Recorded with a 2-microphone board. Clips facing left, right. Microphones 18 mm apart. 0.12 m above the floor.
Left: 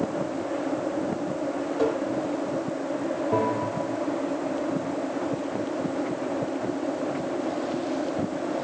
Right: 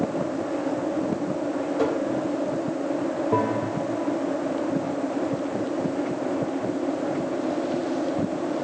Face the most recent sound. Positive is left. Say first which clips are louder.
# right 1 dB
turn(degrees=0)  # may be behind; listen again after turning